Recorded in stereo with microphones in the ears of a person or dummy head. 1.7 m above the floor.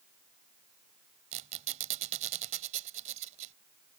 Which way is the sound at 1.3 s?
40° right (ahead or behind).